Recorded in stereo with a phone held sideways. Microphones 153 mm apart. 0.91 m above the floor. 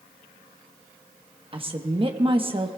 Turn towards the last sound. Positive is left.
turn(degrees=-35)  # may be behind; listen again after turning